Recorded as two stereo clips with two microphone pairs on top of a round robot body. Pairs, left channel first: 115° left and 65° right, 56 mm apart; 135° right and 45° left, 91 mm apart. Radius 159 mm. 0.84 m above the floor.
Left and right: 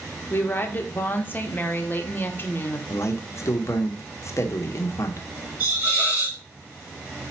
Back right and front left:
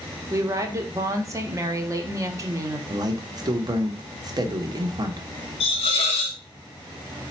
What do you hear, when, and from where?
0.3 s a woman speaking: 90° left, 1.0 m
2.9 s a man speaking: 90° left, 0.9 m
5.6 s a hiss: 120° right, 0.5 m